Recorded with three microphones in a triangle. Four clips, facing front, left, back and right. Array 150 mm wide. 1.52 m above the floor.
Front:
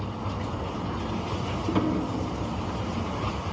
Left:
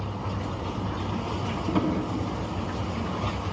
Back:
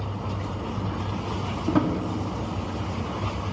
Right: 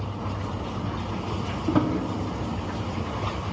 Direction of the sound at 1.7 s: 140° right.